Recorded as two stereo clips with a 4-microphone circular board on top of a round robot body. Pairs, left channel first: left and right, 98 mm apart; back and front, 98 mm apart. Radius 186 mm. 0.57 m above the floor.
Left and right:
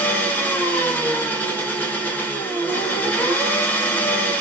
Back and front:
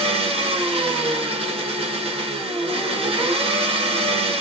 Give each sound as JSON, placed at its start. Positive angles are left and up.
{"t": 0.0, "sound": "an engine running", "azimuth_deg": 20, "distance_m": 1.4}